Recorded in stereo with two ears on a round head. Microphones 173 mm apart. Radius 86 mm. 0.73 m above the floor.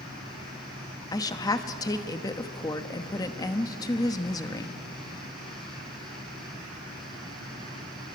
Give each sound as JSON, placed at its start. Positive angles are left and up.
{"t": 1.1, "sound": "a woman speaking", "side_deg": 20, "distance_m": 1.0}